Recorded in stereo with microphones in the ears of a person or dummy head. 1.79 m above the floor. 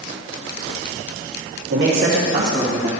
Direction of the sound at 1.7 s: 70° right (ahead or behind).